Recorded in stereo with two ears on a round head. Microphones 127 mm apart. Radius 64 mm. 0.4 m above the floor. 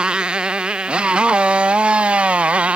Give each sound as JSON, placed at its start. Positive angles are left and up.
{"t": 0.0, "sound": "a motorcycle", "side_deg": -5}